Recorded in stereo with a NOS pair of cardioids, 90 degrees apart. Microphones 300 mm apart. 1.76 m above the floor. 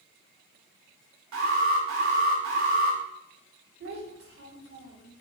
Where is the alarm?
65° right, 6.5 m.